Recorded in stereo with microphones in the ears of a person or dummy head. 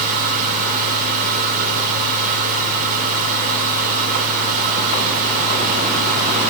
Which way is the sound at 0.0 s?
45° right (ahead or behind).